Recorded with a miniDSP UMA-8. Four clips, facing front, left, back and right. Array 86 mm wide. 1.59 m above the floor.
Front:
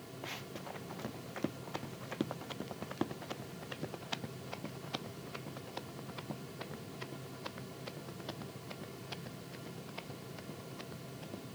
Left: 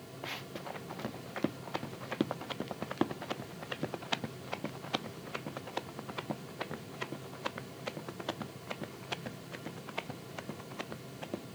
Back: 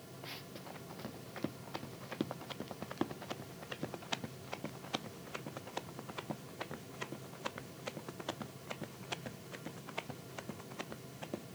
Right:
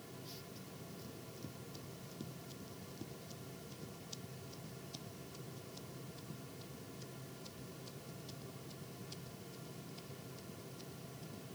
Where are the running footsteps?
75° left; by 11.4 s 110° left.